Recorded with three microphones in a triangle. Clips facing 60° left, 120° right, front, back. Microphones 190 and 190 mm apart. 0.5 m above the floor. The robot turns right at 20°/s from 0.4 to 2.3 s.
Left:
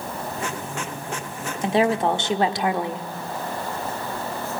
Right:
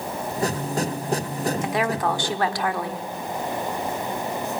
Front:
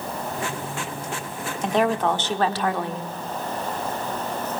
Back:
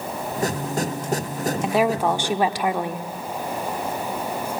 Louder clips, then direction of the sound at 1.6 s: Left 9 dB, even; 100° left.